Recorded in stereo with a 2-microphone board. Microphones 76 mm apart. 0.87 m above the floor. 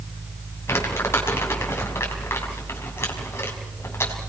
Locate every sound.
0.7 s crumpling: 35° left (ahead or behind), 4.5 m